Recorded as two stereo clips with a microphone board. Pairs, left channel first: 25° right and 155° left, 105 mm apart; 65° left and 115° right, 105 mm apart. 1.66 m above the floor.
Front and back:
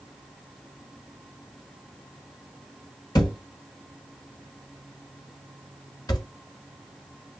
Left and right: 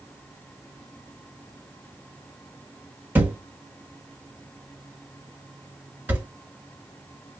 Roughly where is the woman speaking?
I don't hear a woman speaking.